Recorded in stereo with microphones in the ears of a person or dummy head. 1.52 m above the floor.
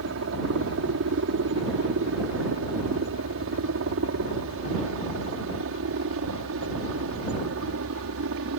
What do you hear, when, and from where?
0.0 s a helicopter: 65° right (ahead or behind); by 8.6 s 70° right (ahead or behind)